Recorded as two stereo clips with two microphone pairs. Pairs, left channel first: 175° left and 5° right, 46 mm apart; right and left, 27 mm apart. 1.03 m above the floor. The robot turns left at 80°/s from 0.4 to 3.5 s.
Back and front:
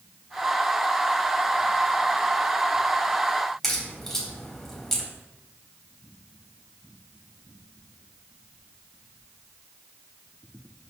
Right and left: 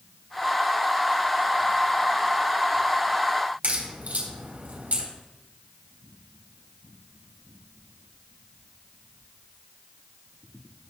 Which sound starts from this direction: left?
A crack, at 3.6 s.